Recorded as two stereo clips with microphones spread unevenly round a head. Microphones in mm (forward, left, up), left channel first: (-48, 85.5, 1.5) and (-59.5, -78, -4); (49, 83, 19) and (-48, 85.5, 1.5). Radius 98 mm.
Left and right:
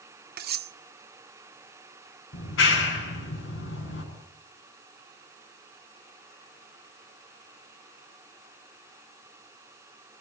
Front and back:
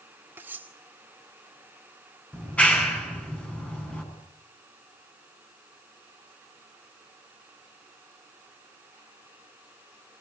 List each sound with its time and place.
0.4 s cutlery clinking: 100° right, 1.0 m
2.3 s a clap: 75° left, 8.5 m